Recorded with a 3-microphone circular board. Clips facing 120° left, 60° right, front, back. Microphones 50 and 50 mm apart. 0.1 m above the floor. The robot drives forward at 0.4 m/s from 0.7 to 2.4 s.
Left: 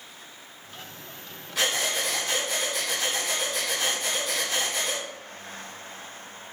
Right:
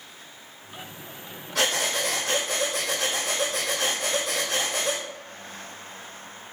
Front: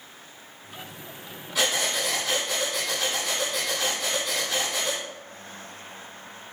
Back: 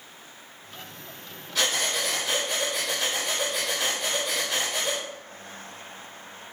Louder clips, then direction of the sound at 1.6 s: Right 2 dB, front 1 dB; 85° right.